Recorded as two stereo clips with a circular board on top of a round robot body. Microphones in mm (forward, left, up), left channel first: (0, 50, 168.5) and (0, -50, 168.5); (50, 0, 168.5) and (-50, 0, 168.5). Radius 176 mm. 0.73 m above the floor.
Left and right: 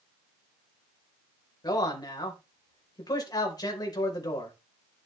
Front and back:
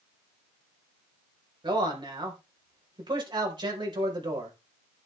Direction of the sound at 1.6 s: 140° left.